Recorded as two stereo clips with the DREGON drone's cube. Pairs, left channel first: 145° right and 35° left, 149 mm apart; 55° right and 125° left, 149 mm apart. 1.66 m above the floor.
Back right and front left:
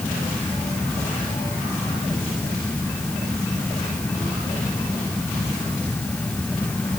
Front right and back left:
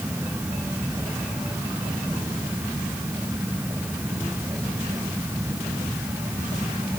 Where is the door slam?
No door slam in this recording.